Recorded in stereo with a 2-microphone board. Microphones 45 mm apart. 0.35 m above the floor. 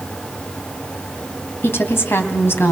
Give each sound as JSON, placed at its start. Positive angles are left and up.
{"t": 1.6, "sound": "a woman speaking", "side_deg": 60, "distance_m": 2.5}